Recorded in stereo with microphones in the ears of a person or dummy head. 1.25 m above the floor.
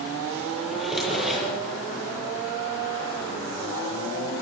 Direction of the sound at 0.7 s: Centre (ahead or behind).